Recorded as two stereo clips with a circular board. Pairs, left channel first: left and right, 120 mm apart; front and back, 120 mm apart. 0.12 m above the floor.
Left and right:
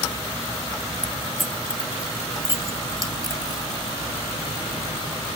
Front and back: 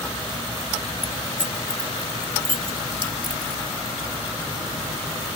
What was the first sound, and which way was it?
Keys jangling, 175° left.